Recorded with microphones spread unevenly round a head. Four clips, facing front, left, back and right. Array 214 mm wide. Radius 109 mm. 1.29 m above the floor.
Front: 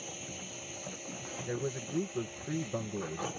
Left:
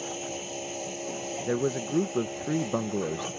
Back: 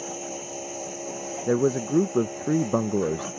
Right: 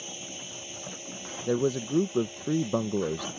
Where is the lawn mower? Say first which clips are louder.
Left 8 dB, back 11 dB; 145° left.